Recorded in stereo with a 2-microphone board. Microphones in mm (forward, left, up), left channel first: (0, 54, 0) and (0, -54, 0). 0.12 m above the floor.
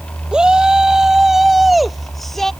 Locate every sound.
0.3 s a shout: 10° right (ahead or behind); by 2.5 s 5° left (ahead or behind)